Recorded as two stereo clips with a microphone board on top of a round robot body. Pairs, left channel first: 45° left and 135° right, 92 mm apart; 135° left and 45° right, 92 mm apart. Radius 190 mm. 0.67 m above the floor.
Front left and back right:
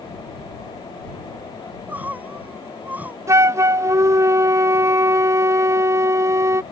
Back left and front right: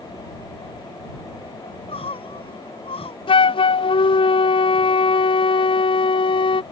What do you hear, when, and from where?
1.6 s crying: 150° left
3.3 s a flute: 165° left